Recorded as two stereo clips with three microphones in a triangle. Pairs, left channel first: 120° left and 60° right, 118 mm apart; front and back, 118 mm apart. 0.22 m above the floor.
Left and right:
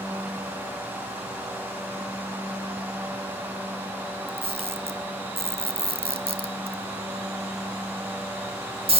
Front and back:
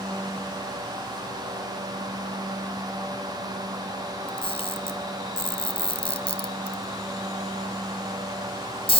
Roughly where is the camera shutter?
Ahead right.